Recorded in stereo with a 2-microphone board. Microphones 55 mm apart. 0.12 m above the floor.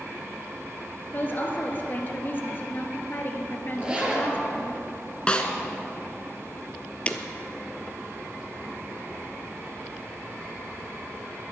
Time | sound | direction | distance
1.1 | a woman speaking | 40° left (ahead or behind) | 1.8 m
3.8 | a zipper | 20° right (ahead or behind) | 2.5 m
5.3 | a snare drum | 20° left (ahead or behind) | 1.2 m
7.1 | breaking glass | 25° left (ahead or behind) | 0.9 m